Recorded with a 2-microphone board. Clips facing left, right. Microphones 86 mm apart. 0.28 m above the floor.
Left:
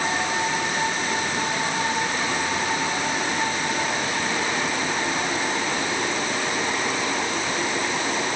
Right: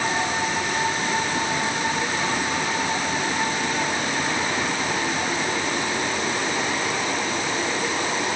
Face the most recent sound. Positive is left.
No sound to turn to.